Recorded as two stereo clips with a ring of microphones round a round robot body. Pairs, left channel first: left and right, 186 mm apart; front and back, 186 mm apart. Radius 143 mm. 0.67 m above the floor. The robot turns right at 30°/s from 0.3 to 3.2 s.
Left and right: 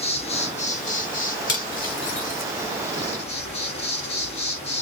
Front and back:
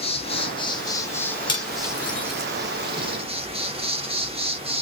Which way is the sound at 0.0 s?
45° left.